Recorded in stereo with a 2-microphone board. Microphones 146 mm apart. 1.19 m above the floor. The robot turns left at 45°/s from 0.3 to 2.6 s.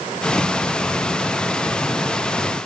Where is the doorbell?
I don't hear a doorbell.